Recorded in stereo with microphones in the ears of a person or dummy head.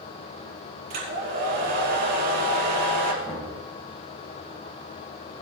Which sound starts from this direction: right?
A hair dryer, at 0.9 s.